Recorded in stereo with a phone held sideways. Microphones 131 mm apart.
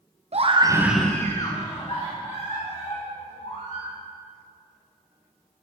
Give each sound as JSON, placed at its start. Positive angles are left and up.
{"t": 0.3, "sound": "a scream", "side_deg": -55, "distance_m": 0.8}